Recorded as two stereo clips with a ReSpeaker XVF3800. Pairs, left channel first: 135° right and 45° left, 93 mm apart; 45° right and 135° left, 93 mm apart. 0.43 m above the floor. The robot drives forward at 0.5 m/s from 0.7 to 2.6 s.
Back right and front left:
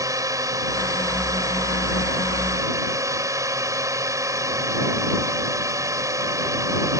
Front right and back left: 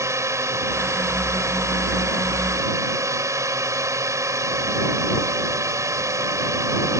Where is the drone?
85° left; by 7.0 s 90° left.